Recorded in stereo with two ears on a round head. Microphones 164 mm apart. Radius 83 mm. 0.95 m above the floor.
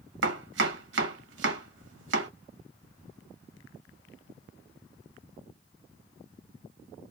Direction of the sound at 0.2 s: 70° right (ahead or behind).